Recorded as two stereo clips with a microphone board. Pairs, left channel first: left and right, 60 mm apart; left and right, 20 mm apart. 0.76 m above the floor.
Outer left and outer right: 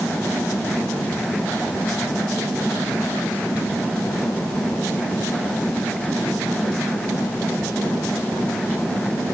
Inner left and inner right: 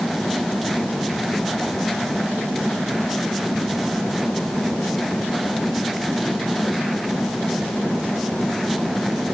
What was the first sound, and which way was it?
Only background noise.